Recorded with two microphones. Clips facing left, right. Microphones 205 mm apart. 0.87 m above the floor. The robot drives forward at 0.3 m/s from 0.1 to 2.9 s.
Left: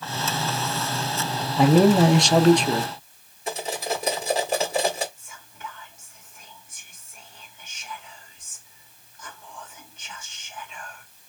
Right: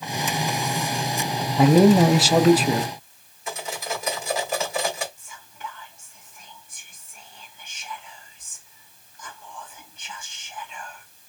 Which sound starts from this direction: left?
Cutlery clinking, at 3.5 s.